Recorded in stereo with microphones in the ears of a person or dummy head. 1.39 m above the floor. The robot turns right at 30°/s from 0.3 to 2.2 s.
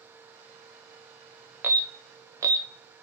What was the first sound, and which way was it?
An alarm, 10° right (ahead or behind).